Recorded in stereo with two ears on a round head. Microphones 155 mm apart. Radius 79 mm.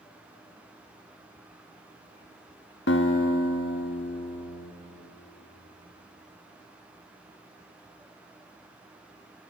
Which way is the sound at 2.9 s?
65° left (ahead or behind).